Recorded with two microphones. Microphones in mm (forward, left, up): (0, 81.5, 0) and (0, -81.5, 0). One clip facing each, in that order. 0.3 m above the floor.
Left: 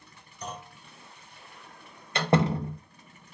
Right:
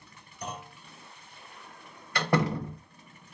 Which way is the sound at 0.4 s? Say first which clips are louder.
Even; 10° right (ahead or behind).